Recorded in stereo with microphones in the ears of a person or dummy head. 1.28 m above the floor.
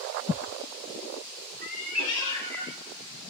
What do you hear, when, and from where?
1.6 s a cat meowing: 20° left (ahead or behind), 1.3 m; by 3.2 s 25° right (ahead or behind), 1.5 m